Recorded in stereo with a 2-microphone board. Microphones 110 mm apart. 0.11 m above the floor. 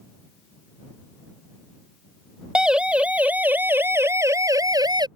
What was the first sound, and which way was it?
A siren, 10° right (ahead or behind).